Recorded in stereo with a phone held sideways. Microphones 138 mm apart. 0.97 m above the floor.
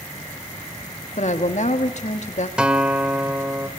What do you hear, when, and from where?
1.2 s a woman speaking: 60° left (ahead or behind), 1.9 m
2.6 s a guitar: 5° right (ahead or behind), 1.4 m